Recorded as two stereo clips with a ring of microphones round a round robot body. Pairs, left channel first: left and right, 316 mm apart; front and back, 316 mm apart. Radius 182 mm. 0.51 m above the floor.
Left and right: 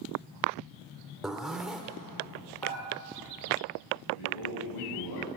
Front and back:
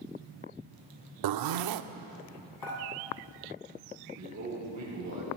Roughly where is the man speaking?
Behind left.